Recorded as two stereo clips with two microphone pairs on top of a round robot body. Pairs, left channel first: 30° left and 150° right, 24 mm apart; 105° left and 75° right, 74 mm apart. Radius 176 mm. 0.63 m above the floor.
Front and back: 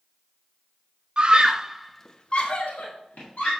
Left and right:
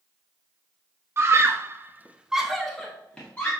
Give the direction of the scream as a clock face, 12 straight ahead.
4 o'clock.